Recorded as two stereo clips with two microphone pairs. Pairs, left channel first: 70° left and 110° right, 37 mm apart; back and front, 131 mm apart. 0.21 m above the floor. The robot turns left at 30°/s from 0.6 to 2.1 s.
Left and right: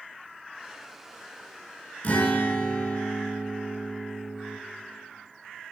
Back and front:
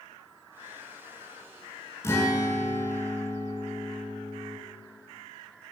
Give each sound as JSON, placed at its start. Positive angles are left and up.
{"t": 2.0, "sound": "a guitar", "azimuth_deg": 115, "distance_m": 0.9}